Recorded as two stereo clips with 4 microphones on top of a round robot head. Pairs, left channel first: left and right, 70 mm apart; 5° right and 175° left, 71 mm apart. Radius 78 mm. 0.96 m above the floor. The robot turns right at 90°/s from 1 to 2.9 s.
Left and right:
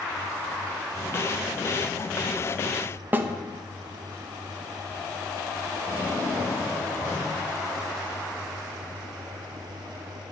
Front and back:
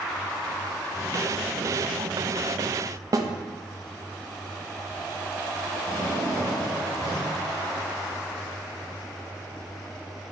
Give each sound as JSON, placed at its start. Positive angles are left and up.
{"t": 3.1, "sound": "a snare drum", "azimuth_deg": -150, "distance_m": 1.0}
{"t": 5.9, "sound": "a drawer", "azimuth_deg": 30, "distance_m": 4.0}